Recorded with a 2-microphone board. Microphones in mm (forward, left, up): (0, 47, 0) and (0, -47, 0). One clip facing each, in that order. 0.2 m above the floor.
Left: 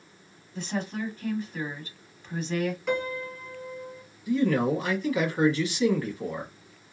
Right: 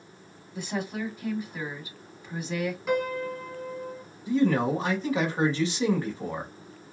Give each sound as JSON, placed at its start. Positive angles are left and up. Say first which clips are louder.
{"t": 0.6, "sound": "a woman speaking", "louder": "even", "side_deg": -10, "distance_m": 1.0}
{"t": 2.9, "sound": "a piano", "louder": "right 2 dB", "side_deg": -10, "distance_m": 1.4}
{"t": 4.3, "sound": "a man speaking", "louder": "even", "side_deg": -30, "distance_m": 1.2}